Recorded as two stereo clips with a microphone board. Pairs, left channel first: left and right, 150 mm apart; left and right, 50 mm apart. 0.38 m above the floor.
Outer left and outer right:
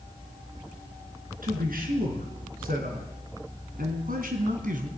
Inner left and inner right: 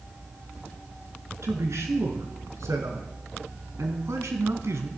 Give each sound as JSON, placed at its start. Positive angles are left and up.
{"t": 1.4, "sound": "a man speaking", "side_deg": -70, "distance_m": 4.0}